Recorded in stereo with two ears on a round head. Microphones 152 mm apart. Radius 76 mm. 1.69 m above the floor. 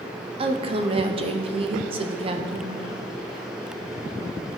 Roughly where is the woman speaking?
Right.